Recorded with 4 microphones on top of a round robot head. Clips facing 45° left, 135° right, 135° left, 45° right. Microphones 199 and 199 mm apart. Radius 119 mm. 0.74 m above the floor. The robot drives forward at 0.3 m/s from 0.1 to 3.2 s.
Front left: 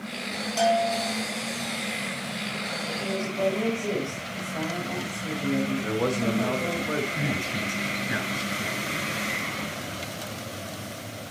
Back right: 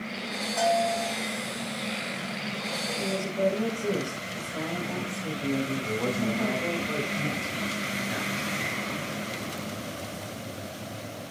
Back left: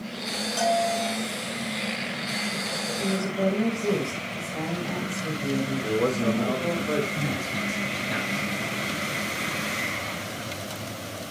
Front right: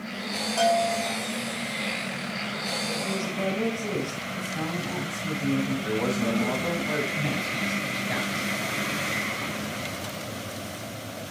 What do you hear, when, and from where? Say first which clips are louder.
0.6 s a bell: front left 2 dB, front right 1 dB; 95° left, 7 m
3.0 s a woman speaking: even, back left 6 dB; 160° left, 4 m
5.8 s a man speaking: front left 3 dB, back left 2 dB; 80° left, 2.5 m
7.2 s a man speaking: front left 2 dB, even; 75° left, 9.5 m